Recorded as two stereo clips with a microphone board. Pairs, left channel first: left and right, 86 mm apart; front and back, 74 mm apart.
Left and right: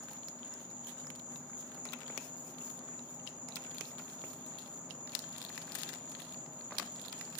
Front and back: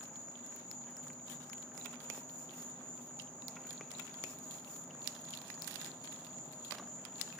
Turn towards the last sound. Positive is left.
turn(degrees=15)